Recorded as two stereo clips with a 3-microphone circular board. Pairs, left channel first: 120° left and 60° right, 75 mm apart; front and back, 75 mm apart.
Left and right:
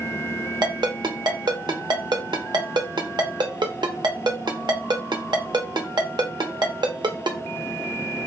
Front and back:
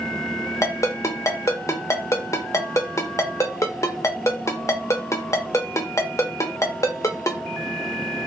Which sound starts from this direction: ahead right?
A ringtone, at 0.6 s.